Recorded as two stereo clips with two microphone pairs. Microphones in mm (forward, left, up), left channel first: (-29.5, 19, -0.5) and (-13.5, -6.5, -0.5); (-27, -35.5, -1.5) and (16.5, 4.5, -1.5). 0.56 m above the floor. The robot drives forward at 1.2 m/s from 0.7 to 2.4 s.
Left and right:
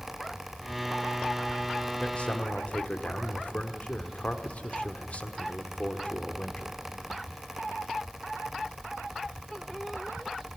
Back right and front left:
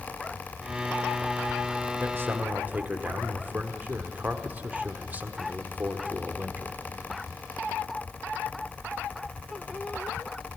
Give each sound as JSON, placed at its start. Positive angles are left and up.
{"t": 2.0, "sound": "a man speaking", "azimuth_deg": 70, "distance_m": 1.4}